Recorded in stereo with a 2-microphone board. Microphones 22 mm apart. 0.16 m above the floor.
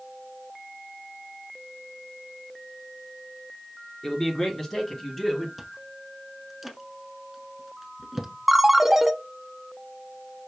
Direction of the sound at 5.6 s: 10° right (ahead or behind).